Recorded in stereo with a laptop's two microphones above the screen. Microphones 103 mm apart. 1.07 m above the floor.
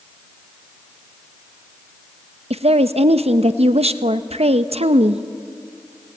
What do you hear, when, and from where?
2.5 s a woman speaking: 80° right, 0.8 m